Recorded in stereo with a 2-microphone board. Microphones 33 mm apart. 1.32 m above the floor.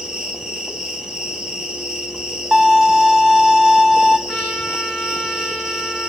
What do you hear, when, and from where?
0.0 s an insect: 25° right (ahead or behind), 4 m
2.5 s a violin: 5° right (ahead or behind), 2 m
4.3 s a trumpet: 10° left (ahead or behind), 5.5 m